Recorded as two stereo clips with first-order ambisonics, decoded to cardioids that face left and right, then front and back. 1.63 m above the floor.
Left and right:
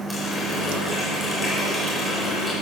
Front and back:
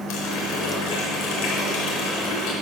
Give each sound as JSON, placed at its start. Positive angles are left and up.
{"t": 0.1, "sound": "a running tap", "azimuth_deg": 15, "distance_m": 4.0}